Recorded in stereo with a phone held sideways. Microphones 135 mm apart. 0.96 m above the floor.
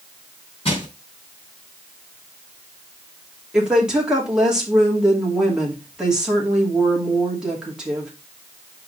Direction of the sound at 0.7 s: 45° left (ahead or behind).